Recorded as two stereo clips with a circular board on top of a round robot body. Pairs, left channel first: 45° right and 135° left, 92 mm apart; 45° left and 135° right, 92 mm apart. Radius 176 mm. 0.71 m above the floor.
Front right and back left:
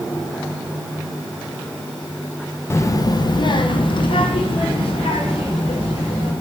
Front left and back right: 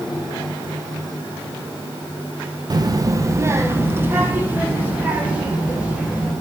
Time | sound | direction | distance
2.7 | a child speaking | 105° right | 0.8 m